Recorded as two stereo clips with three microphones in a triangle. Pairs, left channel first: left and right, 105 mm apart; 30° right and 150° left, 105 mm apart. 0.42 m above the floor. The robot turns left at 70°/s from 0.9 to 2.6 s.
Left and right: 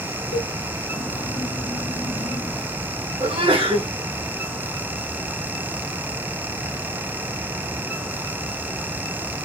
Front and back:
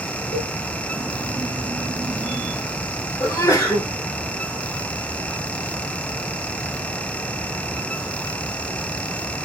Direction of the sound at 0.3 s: 85° left.